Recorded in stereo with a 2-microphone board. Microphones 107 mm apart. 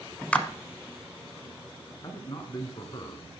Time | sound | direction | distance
0.3 | a clap | 10° left (ahead or behind) | 1.0 m
2.0 | a man speaking | 40° left (ahead or behind) | 1.8 m